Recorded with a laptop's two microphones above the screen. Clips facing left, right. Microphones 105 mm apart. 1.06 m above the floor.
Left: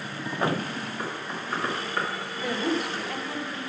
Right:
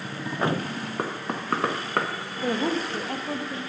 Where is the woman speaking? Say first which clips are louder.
Right 2 dB; 35° right (ahead or behind), 1.6 m.